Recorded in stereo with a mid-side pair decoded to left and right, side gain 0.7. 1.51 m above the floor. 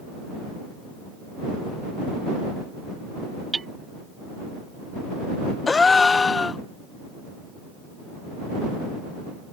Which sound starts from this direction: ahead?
A gasp, at 5.7 s.